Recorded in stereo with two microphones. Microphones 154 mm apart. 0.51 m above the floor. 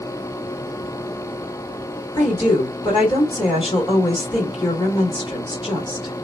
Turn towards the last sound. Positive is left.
turn(degrees=35)  # may be behind; listen again after turning